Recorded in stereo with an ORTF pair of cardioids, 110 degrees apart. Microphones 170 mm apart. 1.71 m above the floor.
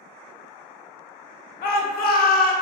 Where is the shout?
60° left, 0.8 m.